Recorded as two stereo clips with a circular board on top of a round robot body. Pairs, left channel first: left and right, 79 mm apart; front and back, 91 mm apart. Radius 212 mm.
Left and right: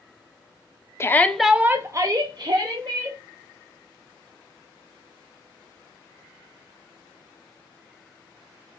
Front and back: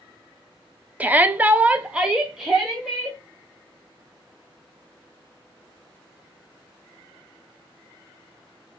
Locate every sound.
1.0 s a shout: 120° left, 0.9 m; by 3.2 s 95° right, 2 m